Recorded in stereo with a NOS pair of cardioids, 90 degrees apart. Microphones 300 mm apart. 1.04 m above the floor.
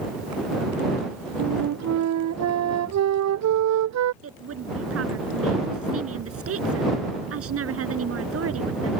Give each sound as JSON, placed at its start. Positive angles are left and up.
{"t": 1.4, "sound": "a flute", "azimuth_deg": -60}
{"t": 4.2, "sound": "a woman speaking", "azimuth_deg": -50}